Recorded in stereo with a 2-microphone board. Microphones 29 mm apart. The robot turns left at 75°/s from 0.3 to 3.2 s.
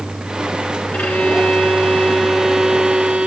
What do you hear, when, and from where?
0.9 s a violin: 115° left, 2 m; by 3.3 s 55° right, 2 m